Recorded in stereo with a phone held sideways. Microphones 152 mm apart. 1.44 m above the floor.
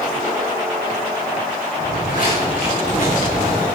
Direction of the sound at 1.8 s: 55° left (ahead or behind).